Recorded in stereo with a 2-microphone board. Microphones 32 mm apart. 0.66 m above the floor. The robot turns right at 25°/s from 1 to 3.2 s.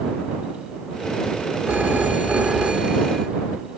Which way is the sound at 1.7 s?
60° right.